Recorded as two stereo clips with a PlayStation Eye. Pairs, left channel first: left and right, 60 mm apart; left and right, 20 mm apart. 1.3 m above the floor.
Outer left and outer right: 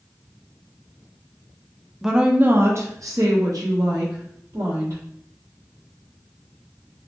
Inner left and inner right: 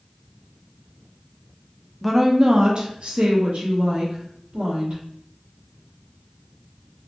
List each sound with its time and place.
2.0 s a woman speaking: 5° right (ahead or behind), 0.5 m; by 5.0 s 80° right, 1.6 m